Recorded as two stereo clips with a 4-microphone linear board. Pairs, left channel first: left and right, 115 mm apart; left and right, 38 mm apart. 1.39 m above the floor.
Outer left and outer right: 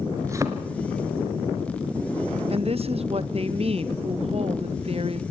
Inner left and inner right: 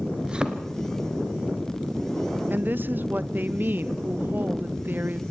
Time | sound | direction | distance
0.2 | a thud | 25° right (ahead or behind) | 1.5 m
2.5 | a woman speaking | 60° right (ahead or behind) | 0.7 m